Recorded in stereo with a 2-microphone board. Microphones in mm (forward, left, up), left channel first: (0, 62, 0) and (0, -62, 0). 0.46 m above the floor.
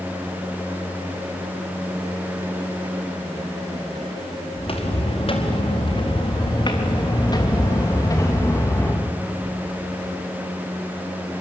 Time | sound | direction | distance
4.6 | footsteps | 55° left (ahead or behind) | 4 m